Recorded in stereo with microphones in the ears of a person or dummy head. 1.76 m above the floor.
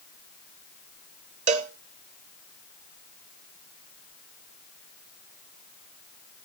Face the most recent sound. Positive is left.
turn(degrees=-35)  # may be behind; listen again after turning